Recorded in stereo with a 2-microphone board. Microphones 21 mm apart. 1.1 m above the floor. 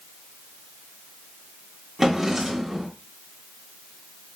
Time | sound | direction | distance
2.0 | a drawer | 15° right (ahead or behind) | 1.4 m